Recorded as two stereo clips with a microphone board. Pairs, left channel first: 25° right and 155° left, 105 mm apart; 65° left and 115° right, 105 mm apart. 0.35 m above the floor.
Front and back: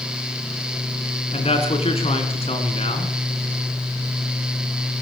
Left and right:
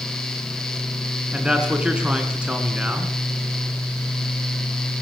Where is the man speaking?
35° right, 4.5 m.